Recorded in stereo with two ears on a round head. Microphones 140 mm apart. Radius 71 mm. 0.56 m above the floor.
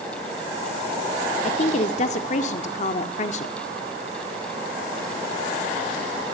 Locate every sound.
1.4 s a woman speaking: 45° left (ahead or behind), 1.6 m